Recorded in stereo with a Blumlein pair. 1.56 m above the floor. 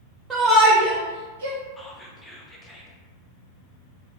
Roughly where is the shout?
Ahead.